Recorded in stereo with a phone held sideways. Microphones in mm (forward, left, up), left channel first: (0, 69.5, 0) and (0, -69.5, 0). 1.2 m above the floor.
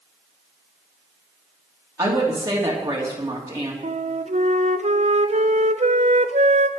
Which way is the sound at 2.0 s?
20° right (ahead or behind).